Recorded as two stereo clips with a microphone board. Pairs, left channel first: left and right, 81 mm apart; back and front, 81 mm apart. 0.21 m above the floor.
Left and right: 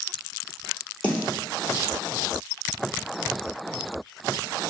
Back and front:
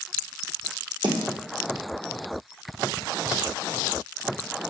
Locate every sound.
1.0 s a snare drum: 20° left, 1.6 m